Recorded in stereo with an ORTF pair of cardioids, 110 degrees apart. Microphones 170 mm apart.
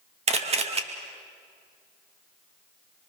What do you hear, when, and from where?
0.3 s a camera shutter: 40° right, 2 m